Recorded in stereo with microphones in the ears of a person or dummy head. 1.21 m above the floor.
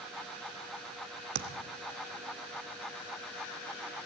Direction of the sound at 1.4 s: 55° right (ahead or behind).